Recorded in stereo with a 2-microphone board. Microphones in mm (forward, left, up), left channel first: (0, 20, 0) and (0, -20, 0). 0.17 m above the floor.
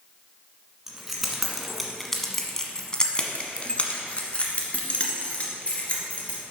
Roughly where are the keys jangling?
Centre.